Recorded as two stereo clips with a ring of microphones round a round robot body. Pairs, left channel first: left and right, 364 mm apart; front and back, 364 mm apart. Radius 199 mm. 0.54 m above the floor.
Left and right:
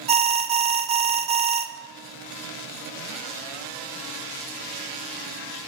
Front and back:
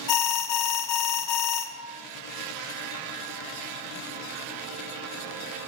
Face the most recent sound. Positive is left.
turn(degrees=-20)